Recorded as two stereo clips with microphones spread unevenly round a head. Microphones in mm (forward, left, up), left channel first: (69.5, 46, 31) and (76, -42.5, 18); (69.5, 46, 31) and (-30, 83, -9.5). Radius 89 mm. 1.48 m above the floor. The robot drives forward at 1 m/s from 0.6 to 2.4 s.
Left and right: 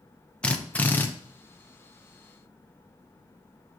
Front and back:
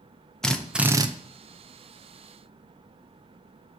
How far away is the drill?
About 0.7 m.